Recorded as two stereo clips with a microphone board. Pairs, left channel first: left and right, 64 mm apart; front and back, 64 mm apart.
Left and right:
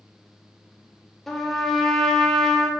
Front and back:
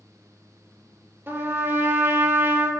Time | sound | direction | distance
1.3 | a trumpet | 175° left | 0.5 m